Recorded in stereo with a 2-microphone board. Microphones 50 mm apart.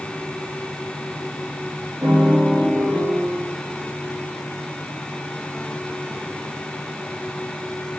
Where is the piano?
65° right (ahead or behind), 3 m.